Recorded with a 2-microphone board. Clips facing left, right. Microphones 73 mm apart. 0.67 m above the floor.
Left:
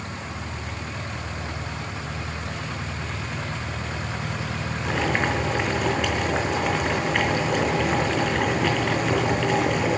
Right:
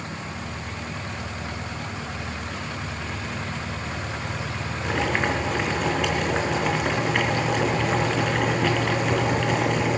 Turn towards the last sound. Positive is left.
turn(degrees=0)  # may be behind; listen again after turning